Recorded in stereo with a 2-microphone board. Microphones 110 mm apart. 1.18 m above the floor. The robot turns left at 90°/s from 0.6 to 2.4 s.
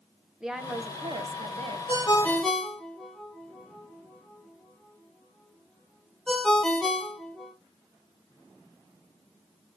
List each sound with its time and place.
0.4 s a woman speaking: 5° right, 0.5 m; by 1.8 s 110° right, 0.5 m
1.9 s a ringtone: 50° left (ahead or behind), 0.8 m; by 7.5 s 5° left (ahead or behind), 0.8 m